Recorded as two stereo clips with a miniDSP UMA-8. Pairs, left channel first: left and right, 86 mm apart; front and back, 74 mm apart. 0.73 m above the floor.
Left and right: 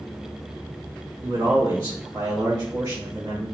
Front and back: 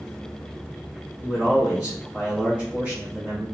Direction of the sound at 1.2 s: 120° right.